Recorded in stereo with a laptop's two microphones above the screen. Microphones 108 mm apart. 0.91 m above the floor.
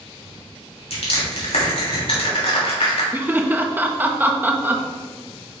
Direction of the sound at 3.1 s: 20° right (ahead or behind).